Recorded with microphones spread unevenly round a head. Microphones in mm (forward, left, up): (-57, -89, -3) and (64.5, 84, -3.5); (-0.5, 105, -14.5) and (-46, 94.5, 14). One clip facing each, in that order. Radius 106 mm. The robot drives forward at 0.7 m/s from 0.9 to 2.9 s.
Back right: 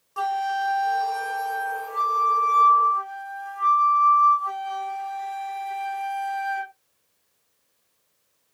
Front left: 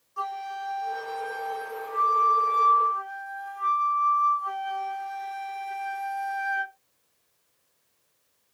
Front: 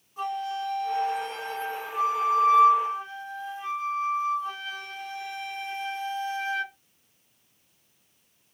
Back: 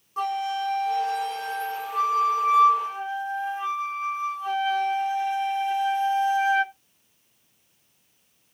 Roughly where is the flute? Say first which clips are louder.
Back right 9 dB, back 4 dB; behind right.